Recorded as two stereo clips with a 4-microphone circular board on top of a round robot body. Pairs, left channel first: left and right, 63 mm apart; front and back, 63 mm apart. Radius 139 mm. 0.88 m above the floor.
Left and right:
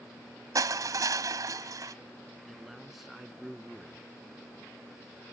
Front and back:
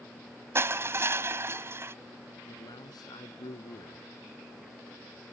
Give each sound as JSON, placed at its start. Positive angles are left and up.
{"t": 0.6, "sound": "crushing", "azimuth_deg": -125}
{"t": 2.5, "sound": "a man speaking", "azimuth_deg": 0}